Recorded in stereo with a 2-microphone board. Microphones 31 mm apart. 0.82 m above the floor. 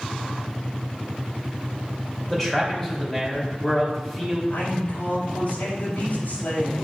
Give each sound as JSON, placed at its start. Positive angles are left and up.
{"t": 2.3, "sound": "a man speaking", "side_deg": 10, "distance_m": 3.0}
{"t": 4.5, "sound": "a man speaking", "side_deg": 85, "distance_m": 4.0}